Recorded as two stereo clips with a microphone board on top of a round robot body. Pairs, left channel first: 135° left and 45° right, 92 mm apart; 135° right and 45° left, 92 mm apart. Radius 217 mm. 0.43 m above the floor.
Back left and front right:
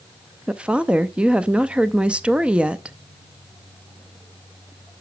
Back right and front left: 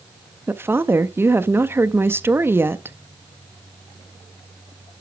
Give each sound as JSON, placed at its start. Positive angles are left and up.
{"t": 0.5, "sound": "a woman speaking", "azimuth_deg": 20, "distance_m": 0.8}